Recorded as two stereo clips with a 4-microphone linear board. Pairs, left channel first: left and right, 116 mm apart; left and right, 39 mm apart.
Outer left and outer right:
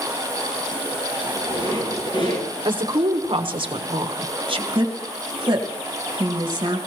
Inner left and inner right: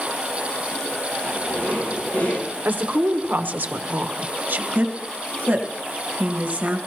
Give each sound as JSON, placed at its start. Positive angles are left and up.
{"t": 1.2, "sound": "a squeak", "side_deg": 40, "distance_m": 4.5}
{"t": 2.6, "sound": "a woman speaking", "side_deg": -45, "distance_m": 1.1}
{"t": 4.7, "sound": "a woman speaking", "side_deg": -40, "distance_m": 1.8}